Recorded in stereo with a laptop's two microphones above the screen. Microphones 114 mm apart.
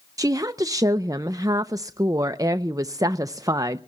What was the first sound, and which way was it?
A woman speaking, 30° right (ahead or behind).